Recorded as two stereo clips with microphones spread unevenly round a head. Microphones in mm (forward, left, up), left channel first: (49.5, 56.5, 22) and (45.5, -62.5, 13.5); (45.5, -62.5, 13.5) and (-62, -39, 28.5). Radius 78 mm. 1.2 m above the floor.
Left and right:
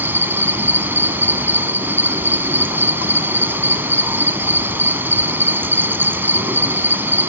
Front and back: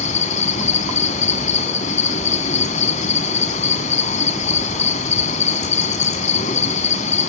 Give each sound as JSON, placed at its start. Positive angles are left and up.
{"t": 0.0, "sound": "an insect", "azimuth_deg": -20, "distance_m": 1.9}